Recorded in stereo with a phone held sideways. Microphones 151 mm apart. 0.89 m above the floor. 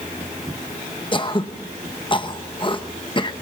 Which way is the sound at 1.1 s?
35° left (ahead or behind).